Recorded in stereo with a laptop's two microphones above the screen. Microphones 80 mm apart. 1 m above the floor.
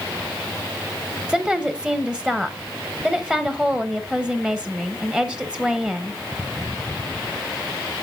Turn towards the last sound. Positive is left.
turn(degrees=-10)  # may be behind; listen again after turning